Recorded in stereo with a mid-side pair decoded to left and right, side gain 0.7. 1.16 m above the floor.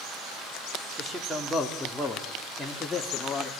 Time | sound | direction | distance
1.0 | a man speaking | 20° right | 3.5 m